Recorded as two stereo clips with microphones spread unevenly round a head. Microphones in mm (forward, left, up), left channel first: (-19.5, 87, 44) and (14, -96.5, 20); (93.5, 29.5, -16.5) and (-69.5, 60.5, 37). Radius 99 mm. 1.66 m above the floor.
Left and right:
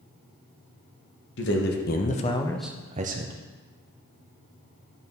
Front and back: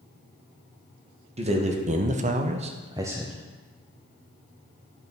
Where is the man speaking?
125° left, 1.5 m; by 3.3 s 115° right, 0.9 m.